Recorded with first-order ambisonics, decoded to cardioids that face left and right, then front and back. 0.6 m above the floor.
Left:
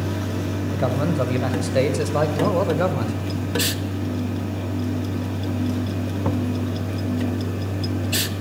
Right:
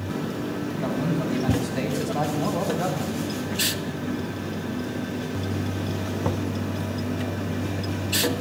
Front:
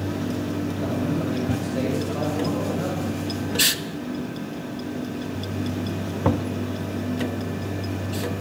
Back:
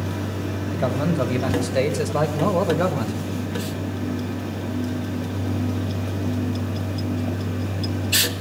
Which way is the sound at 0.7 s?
130° left.